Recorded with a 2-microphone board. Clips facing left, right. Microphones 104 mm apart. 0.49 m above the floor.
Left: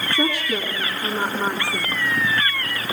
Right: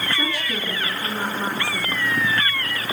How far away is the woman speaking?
About 4.5 m.